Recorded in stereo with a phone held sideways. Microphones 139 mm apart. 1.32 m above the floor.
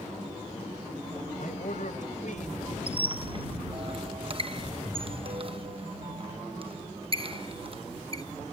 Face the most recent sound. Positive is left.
turn(degrees=-40)  # may be behind; listen again after turning